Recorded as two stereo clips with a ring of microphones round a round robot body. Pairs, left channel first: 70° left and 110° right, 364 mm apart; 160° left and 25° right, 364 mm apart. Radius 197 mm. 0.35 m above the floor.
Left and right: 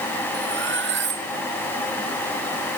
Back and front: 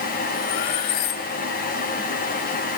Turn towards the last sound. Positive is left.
turn(degrees=-175)